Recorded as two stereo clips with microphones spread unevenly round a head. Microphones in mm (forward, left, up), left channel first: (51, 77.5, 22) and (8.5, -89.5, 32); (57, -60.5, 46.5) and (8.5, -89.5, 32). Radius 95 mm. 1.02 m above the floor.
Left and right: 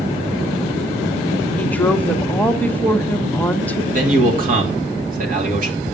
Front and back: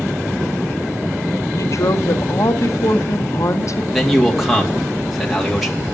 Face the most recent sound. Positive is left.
turn(degrees=-65)